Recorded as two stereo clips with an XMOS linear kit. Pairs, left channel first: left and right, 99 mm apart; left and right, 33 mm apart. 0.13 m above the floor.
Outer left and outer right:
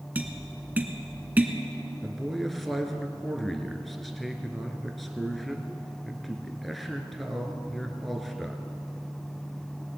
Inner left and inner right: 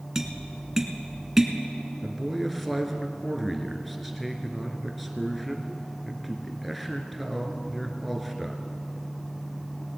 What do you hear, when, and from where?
0.1 s tapping: 15° right (ahead or behind), 1.0 m
2.0 s a man speaking: centre (ahead or behind), 1.5 m